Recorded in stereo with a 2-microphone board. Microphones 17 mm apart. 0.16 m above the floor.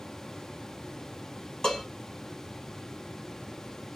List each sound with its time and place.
1.6 s dishes clattering: 45° left (ahead or behind), 3 m